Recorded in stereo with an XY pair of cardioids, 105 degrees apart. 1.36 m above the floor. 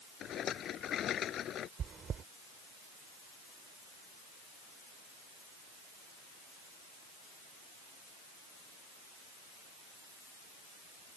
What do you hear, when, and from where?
0.2 s a rattle: 60° left
1.8 s chewing: 50° right